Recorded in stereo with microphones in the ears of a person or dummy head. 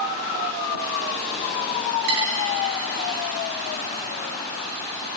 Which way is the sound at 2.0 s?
50° right (ahead or behind).